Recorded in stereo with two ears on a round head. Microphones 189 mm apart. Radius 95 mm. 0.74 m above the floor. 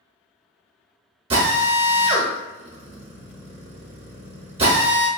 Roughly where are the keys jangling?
No keys jangling in this recording.